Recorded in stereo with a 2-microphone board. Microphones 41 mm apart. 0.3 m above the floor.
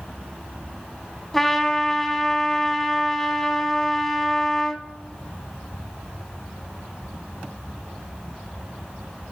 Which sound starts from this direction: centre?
A trumpet, at 1.3 s.